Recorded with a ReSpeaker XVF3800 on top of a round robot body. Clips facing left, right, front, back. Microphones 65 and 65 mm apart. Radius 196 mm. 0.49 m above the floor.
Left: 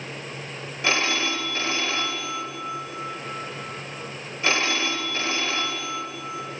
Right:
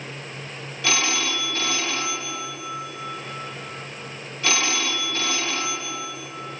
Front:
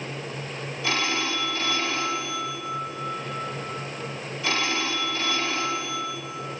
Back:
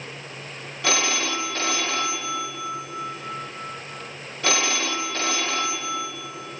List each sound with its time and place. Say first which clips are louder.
0.8 s a phone ringing: left 1 dB, back 2 dB; 155° left, 2 m